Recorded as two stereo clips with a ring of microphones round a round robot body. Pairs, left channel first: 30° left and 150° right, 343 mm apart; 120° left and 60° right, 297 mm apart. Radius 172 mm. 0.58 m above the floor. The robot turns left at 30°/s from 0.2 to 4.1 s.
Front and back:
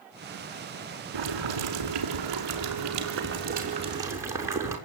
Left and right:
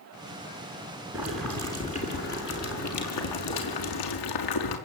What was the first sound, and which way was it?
Boiling, 145° right.